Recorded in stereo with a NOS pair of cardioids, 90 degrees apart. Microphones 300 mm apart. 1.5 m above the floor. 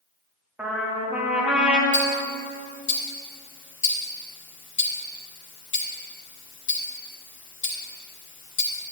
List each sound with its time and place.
0.6 s a trumpet: 5° right, 2.5 m
1.9 s ticking: 40° left, 3 m